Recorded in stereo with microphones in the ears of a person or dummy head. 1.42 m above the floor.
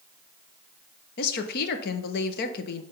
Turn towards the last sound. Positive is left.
turn(degrees=60)  # may be behind; listen again after turning